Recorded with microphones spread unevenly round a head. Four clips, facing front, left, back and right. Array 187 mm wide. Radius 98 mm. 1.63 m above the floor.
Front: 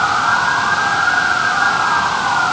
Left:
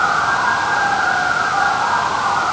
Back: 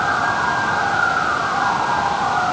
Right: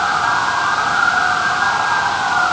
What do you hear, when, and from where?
Only background noise.